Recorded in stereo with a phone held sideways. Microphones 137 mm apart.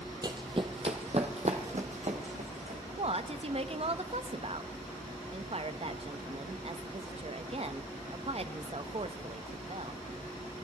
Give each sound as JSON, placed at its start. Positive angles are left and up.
{"t": 0.2, "sound": "running footsteps", "side_deg": -30, "distance_m": 1.1}
{"t": 3.0, "sound": "a woman speaking", "side_deg": -45, "distance_m": 0.7}